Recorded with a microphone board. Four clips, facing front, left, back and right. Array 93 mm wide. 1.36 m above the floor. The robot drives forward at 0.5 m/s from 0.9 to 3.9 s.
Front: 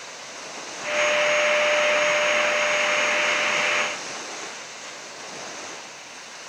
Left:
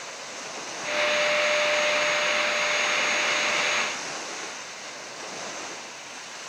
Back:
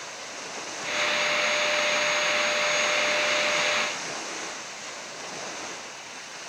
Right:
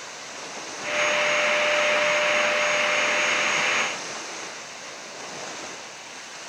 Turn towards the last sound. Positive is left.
No sound to turn to.